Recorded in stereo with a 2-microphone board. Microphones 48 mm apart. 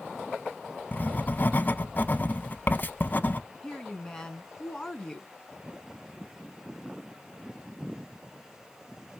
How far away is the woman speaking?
About 1.6 m.